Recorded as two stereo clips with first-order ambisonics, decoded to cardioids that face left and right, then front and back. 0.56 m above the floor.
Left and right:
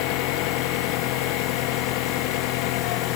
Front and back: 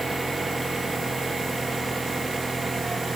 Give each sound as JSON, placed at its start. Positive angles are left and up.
{"t": 0.0, "sound": "an engine running", "azimuth_deg": 100}